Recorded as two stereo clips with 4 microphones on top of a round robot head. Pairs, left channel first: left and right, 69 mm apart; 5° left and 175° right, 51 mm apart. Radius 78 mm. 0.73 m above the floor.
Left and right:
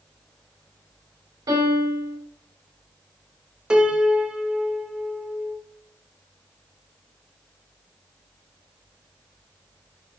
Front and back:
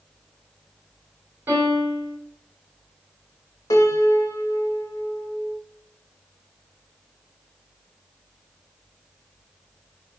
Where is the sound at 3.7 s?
15° right, 0.6 m.